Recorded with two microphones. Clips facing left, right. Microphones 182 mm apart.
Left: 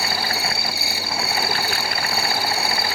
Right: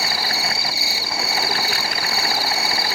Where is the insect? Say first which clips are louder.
Left 1 dB; 60° left (ahead or behind), 1.3 m.